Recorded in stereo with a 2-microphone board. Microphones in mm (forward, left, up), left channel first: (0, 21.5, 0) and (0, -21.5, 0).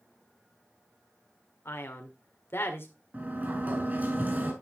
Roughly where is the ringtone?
I don't hear a ringtone.